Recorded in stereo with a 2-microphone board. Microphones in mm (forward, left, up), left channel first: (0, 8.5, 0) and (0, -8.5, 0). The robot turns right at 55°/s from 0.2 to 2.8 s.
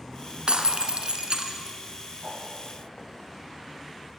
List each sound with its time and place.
0.5 s breaking glass: 105° right, 1.5 m; by 1.8 s 30° right, 1.5 m
2.2 s a whoosh: 45° right (ahead or behind), 9 m; by 2.4 s 55° right (ahead or behind), 9 m